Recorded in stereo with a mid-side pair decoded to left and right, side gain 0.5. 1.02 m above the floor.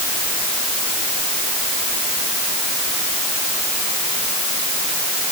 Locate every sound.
Only background noise.